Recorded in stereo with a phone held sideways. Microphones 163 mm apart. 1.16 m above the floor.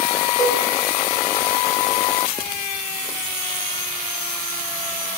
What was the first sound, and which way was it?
A cowbell, 20° left (ahead or behind).